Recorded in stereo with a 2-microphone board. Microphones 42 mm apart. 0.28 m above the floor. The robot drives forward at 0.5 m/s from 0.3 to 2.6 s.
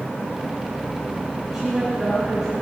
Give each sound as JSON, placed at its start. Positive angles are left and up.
{"t": 1.5, "sound": "a woman speaking", "side_deg": -10, "distance_m": 4.5}